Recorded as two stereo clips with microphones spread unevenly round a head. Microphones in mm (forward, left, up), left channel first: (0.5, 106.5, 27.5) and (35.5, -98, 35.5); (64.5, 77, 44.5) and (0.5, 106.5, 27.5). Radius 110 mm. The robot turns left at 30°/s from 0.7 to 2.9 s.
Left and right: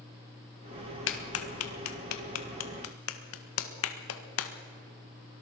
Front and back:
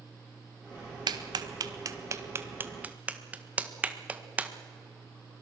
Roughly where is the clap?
Behind left.